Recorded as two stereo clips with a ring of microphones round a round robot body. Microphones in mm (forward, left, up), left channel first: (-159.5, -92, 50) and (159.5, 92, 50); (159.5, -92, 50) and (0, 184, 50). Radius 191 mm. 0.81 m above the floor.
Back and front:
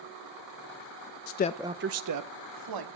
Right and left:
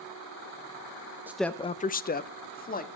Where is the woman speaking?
160° right, 0.6 m; by 2.9 s 5° left, 1.7 m.